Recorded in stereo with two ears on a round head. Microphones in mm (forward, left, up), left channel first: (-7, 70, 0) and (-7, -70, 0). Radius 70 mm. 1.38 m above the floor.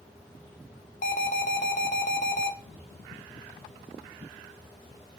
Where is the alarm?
55° left (ahead or behind), 0.9 m.